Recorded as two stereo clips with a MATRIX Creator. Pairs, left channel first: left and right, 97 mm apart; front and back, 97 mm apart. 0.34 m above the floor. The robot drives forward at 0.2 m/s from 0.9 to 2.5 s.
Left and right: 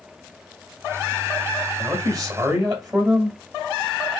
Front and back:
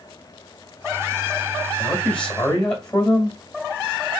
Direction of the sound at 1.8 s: 70° right.